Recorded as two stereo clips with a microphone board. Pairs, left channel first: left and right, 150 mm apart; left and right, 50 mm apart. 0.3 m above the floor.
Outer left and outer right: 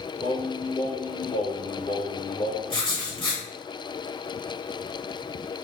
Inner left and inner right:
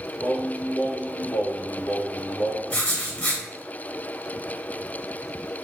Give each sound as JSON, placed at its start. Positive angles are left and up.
{"t": 0.2, "sound": "singing", "side_deg": 55, "distance_m": 1.3}
{"t": 2.7, "sound": "writing", "side_deg": 35, "distance_m": 1.1}